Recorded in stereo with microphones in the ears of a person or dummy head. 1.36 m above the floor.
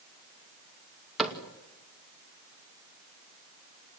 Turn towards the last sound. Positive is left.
turn(degrees=0)  # may be behind; listen again after turning